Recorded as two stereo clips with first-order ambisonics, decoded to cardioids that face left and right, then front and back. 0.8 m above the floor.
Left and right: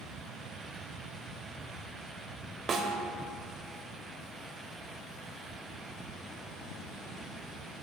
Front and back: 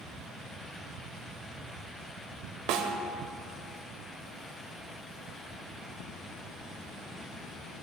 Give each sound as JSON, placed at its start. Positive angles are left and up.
{"t": 2.7, "sound": "a snare drum", "azimuth_deg": -155, "distance_m": 1.1}